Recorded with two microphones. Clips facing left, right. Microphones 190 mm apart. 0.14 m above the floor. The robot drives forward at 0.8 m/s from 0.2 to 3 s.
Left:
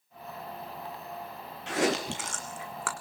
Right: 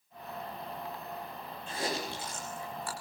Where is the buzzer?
I don't hear a buzzer.